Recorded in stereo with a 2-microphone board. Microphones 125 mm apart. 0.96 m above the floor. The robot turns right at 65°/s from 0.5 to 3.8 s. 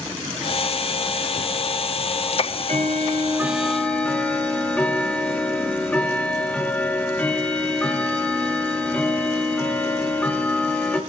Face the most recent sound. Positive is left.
turn(degrees=10)